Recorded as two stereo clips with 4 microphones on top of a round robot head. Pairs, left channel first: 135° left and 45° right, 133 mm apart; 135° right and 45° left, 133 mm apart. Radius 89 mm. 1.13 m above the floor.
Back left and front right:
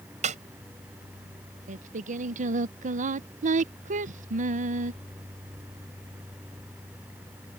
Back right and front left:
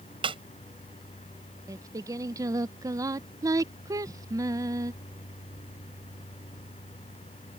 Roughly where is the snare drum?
Ahead.